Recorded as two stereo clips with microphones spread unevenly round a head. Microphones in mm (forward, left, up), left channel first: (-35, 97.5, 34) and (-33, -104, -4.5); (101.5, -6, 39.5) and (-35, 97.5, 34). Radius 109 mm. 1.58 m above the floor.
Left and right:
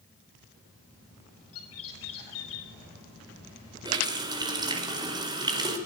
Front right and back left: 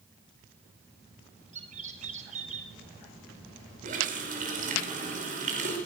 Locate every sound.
1.5 s a bird: 95° left, 5 m
3.9 s a running tap: 160° right, 4.5 m